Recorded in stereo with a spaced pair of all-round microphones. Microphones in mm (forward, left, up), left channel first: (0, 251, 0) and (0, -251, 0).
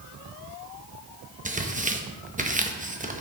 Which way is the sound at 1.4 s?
15° right (ahead or behind).